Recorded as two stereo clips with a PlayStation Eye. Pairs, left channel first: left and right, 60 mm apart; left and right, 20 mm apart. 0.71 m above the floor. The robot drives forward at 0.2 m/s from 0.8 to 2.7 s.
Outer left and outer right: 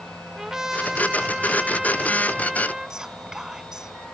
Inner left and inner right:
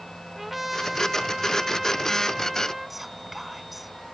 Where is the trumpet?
10° right (ahead or behind).